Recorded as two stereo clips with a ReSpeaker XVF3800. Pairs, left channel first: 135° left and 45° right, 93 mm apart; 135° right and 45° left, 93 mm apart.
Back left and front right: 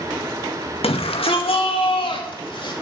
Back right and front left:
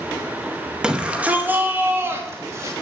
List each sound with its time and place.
0.8 s a shout: 125° left, 1.9 m; by 2.7 s 100° left, 2.5 m